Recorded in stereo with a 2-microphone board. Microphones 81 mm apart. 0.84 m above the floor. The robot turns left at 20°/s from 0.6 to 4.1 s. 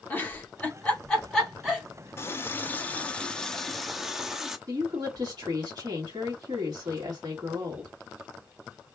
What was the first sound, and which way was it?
A giggle, 20° left (ahead or behind).